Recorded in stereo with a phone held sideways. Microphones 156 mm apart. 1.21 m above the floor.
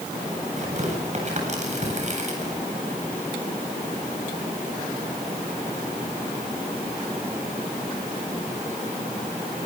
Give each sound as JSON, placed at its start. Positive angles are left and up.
{"t": 0.6, "sound": "tearing paper", "side_deg": -50, "distance_m": 8.5}